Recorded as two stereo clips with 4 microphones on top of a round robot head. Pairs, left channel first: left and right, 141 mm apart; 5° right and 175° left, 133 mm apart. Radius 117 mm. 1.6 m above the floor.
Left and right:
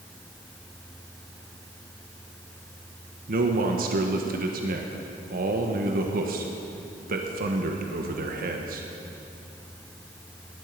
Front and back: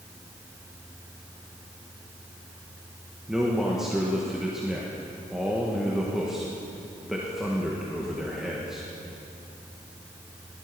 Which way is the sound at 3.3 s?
100° right.